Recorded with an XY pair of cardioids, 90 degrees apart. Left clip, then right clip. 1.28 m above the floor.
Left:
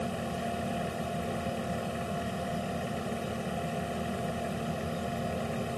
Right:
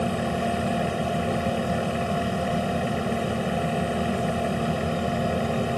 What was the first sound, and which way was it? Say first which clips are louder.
A fan: right 8 dB; 55° right.